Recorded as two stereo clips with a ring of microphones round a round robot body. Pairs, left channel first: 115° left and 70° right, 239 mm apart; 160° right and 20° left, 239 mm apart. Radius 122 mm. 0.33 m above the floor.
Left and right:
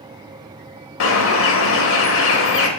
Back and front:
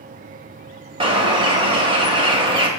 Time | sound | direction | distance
1.0 | a bird | 90° left | 0.6 m